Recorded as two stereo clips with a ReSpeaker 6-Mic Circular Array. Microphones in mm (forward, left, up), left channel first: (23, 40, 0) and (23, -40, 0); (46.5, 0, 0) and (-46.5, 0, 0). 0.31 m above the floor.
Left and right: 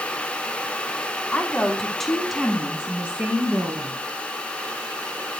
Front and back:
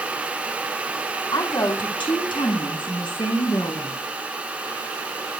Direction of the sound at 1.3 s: 20° left.